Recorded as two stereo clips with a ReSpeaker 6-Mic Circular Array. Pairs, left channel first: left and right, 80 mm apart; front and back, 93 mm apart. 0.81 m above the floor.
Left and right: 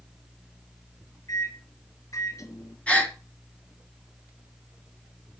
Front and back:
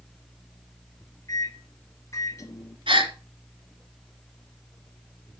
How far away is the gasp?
About 2 m.